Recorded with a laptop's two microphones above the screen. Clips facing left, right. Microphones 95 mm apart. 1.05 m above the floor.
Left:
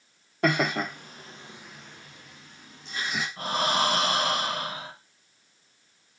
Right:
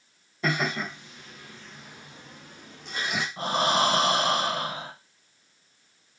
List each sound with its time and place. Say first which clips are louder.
0.4 s laughter: left 3 dB; 65° left (ahead or behind), 1.0 m; by 3.3 s 60° right (ahead or behind), 1.1 m
3.4 s breathing: right 2 dB; 25° right (ahead or behind), 0.8 m